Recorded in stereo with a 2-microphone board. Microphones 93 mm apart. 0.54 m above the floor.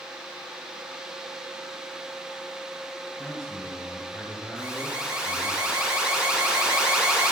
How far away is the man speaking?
About 7.5 m.